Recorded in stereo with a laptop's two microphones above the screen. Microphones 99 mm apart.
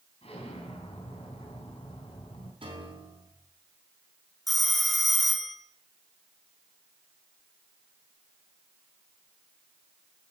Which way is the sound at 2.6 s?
65° right (ahead or behind).